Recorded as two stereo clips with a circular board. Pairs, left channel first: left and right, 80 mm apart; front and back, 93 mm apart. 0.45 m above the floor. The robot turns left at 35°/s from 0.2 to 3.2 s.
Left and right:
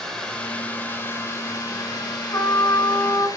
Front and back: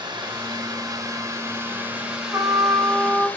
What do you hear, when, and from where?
0.0 s running water: 170° left, 1.6 m; by 3.4 s 65° left, 1.6 m
2.3 s a trumpet: 120° left, 1.0 m; by 3.3 s 90° left, 1.0 m